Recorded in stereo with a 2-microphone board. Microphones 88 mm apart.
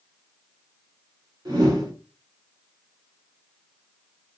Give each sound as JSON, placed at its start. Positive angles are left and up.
{"t": 1.4, "sound": "a whoosh", "side_deg": -45, "distance_m": 1.7}